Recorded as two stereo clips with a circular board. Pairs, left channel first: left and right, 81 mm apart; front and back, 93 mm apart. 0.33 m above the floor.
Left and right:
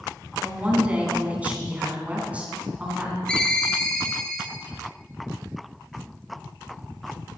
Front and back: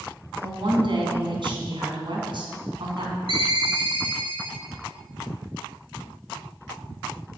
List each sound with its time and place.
0.4 s a woman speaking: 160° right, 3.5 m
3.3 s a ringtone: 165° left, 2 m